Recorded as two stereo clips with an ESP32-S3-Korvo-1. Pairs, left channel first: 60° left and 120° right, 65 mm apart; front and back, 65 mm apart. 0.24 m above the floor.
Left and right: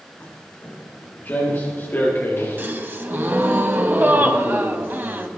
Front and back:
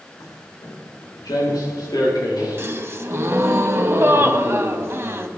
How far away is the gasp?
About 1.0 m.